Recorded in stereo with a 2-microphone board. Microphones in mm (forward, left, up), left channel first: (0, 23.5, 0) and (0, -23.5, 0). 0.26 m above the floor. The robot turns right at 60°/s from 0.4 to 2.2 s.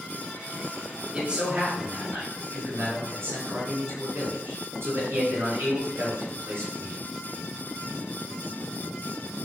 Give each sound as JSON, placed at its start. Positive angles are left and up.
{"t": 1.1, "sound": "a man speaking", "azimuth_deg": -165, "distance_m": 3.5}